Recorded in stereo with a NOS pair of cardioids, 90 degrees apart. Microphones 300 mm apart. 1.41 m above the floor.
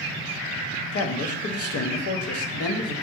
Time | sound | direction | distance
0.9 | a man speaking | 50° left | 0.6 m